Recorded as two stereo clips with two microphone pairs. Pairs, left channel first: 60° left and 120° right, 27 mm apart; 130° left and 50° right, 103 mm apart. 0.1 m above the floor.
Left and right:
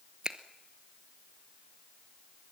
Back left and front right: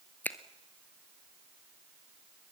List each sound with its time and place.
0.2 s a finger snap: 165° right, 1.2 m